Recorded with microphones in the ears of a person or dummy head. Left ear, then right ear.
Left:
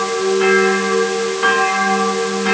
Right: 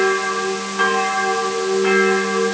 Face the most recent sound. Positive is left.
No sound to turn to.